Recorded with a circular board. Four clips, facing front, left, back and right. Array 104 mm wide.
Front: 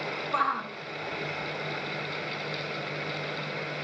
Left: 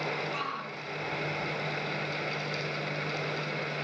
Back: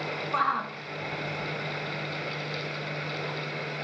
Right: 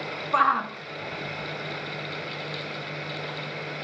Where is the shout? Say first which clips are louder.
Right 13 dB, back 1 dB; 90° right, 1.1 m; by 3.4 s 175° right, 4 m.